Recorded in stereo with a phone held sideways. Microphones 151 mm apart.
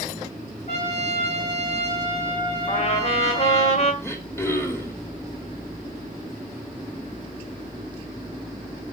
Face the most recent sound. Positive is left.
turn(degrees=15)  # may be behind; listen again after turning